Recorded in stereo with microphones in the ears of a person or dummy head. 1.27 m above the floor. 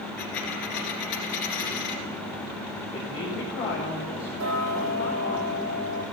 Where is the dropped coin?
60° left (ahead or behind), 2 m.